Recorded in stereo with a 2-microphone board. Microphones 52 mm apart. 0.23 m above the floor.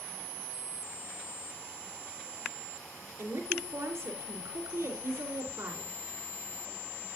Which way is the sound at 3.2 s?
60° right (ahead or behind).